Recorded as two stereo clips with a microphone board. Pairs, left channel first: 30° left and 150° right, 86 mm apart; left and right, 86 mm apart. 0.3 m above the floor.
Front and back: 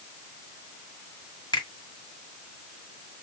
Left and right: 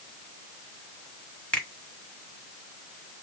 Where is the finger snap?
10° left, 1.8 m.